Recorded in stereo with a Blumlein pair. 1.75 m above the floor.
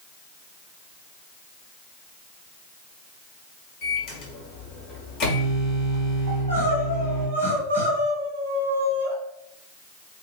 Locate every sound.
3.8 s a microwave: 40° left, 1.0 m
6.3 s crying: 65° right, 1.4 m